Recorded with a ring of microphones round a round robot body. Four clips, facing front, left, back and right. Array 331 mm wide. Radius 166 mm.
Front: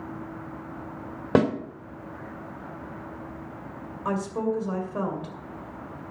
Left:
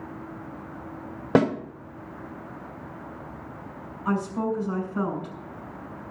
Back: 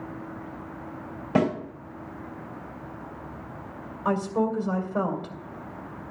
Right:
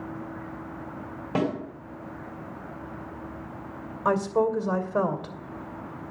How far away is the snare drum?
About 2.5 m.